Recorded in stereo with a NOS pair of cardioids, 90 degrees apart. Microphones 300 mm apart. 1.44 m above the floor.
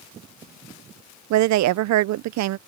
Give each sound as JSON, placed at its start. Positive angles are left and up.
{"t": 1.3, "sound": "a woman speaking", "azimuth_deg": -70}